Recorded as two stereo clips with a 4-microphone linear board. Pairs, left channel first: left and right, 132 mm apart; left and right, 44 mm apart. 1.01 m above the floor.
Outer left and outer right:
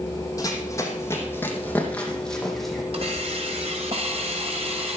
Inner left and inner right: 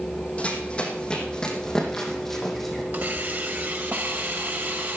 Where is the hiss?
50° right (ahead or behind), 2.5 m.